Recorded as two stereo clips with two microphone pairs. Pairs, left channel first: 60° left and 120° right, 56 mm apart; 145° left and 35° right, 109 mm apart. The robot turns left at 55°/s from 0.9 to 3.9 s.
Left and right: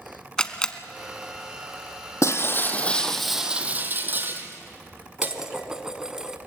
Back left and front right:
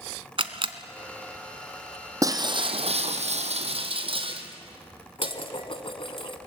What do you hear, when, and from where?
0.4 s a camera shutter: 15° right, 1.2 m
2.2 s breaking glass: 25° left, 1.6 m; by 5.3 s 70° right, 1.6 m
5.2 s dishes clattering: 160° left, 1.1 m